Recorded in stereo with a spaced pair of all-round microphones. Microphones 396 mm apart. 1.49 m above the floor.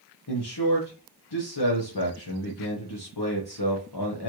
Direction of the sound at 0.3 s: 75° left (ahead or behind).